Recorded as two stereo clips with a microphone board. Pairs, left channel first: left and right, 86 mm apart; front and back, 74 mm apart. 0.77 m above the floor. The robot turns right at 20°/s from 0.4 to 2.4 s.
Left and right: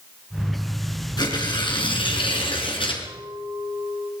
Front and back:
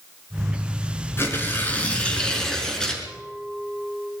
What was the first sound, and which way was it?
Tearing paper, 55° left.